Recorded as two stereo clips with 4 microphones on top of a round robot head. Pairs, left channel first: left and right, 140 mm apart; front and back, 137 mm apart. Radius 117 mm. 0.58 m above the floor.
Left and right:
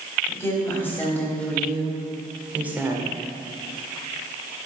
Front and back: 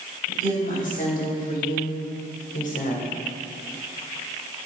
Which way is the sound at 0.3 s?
20° left.